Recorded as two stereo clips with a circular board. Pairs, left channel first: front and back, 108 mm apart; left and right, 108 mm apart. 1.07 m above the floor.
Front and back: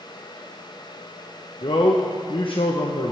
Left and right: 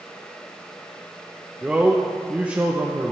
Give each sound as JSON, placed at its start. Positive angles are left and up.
{"t": 1.6, "sound": "a man speaking", "azimuth_deg": -15, "distance_m": 0.7}